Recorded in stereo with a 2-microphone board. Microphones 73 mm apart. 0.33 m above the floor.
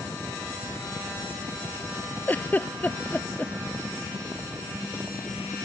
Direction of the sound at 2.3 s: 25° left (ahead or behind).